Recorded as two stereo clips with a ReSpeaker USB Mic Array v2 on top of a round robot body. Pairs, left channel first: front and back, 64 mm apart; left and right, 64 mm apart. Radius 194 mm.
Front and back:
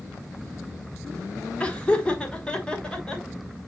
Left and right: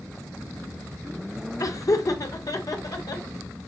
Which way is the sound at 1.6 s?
70° left.